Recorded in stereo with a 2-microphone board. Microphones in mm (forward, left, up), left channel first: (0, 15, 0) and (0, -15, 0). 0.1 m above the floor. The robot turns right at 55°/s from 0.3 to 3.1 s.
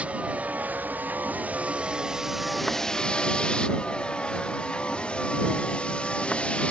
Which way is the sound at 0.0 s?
45° right (ahead or behind).